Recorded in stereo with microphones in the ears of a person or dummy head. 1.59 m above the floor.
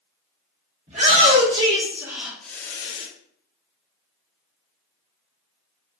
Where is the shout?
40° right (ahead or behind), 1.3 m; by 3.1 s 35° left (ahead or behind), 0.7 m.